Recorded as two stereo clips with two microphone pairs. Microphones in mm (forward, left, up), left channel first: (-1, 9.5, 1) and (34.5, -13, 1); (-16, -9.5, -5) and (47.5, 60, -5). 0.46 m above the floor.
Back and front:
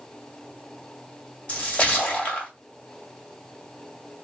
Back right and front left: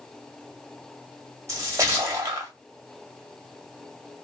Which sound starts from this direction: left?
A splash, at 1.5 s.